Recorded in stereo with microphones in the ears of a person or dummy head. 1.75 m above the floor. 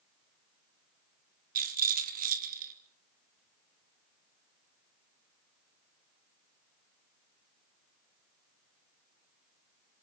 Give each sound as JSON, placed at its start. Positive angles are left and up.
{"t": 1.6, "sound": "a rattle", "side_deg": -60, "distance_m": 3.0}